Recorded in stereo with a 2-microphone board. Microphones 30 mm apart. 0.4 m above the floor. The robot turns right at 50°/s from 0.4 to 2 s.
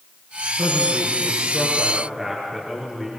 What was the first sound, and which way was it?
A man speaking, 80° right.